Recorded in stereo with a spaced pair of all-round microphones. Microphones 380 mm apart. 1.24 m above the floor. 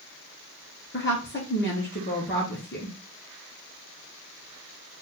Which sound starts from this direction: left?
A woman speaking, at 0.9 s.